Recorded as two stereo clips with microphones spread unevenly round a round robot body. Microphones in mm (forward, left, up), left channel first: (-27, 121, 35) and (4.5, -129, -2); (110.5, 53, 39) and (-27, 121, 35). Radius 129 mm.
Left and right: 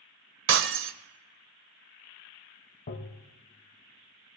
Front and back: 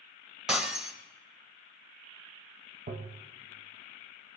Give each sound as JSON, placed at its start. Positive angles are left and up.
{"t": 0.5, "sound": "breaking glass", "azimuth_deg": -120, "distance_m": 0.7}
{"t": 2.9, "sound": "tapping", "azimuth_deg": 150, "distance_m": 1.3}